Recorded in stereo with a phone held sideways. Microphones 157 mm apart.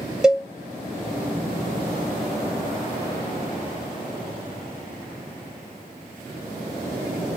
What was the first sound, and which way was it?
A cowbell, 5° right (ahead or behind).